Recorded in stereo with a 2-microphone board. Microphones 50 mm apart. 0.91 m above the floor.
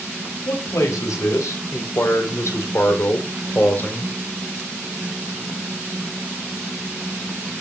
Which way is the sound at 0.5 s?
85° left.